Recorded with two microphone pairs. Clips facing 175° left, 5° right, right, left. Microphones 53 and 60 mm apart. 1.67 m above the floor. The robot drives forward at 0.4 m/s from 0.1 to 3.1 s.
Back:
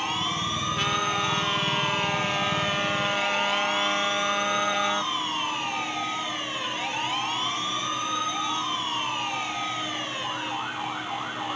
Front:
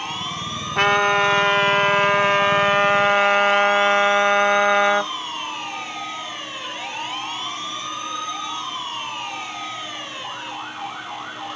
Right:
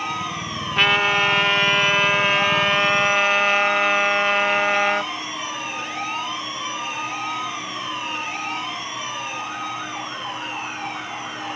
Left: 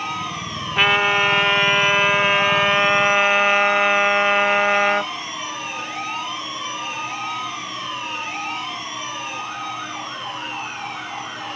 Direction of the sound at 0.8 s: 5° left.